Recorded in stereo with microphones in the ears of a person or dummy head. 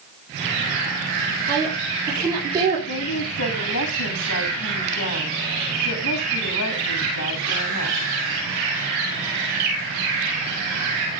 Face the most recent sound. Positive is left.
turn(degrees=85)